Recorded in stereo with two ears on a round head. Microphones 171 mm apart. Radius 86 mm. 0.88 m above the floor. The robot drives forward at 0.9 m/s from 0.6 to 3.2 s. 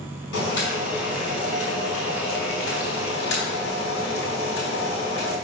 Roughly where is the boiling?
Left.